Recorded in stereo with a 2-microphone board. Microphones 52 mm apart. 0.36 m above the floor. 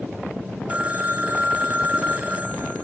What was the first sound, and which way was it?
A phone ringing, 25° right (ahead or behind).